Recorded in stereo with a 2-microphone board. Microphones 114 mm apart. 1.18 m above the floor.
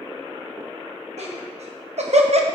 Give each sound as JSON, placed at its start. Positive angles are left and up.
{"t": 1.2, "sound": "laughter", "side_deg": -70, "distance_m": 2.0}